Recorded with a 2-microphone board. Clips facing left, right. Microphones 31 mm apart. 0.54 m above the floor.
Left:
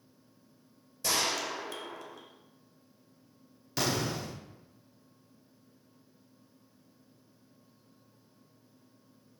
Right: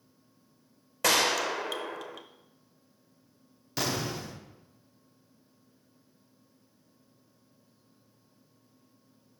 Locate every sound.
1.0 s a gunshot: 85° right, 0.5 m
3.8 s an explosion: centre (ahead or behind), 0.9 m